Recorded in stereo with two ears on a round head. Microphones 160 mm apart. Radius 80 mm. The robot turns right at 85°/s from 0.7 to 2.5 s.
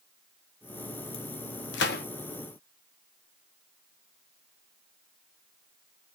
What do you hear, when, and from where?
1.7 s a gunshot: 70° left (ahead or behind), 0.7 m; by 2.0 s 55° left (ahead or behind), 0.7 m